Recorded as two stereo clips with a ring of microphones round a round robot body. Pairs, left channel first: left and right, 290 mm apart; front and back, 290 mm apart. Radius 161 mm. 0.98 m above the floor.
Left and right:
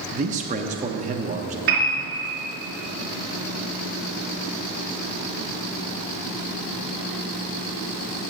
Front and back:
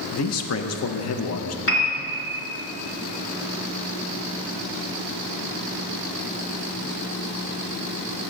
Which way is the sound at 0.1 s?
30° right.